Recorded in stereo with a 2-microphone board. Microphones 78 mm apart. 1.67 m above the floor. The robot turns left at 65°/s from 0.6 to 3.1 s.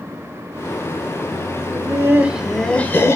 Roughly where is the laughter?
Behind right.